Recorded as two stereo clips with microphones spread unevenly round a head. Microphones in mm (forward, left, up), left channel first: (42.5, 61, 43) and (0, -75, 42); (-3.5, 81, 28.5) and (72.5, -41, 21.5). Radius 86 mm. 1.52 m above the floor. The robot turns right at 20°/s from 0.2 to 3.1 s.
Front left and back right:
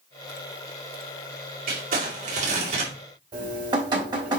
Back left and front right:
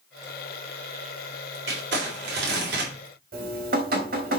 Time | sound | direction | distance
1.7 | crumpling | 85° right | 3.5 m
3.3 | dripping | 45° right | 3.5 m